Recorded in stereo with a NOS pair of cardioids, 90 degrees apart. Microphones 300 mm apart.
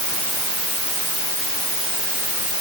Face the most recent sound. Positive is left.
No sound to turn to.